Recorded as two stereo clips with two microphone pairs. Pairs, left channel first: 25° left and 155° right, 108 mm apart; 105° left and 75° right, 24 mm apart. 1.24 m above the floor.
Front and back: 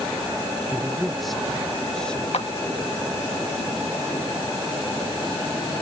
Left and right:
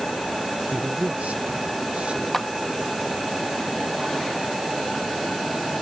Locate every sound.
0.7 s a man speaking: 85° right; by 2.2 s 60° right
2.3 s a clap: 20° left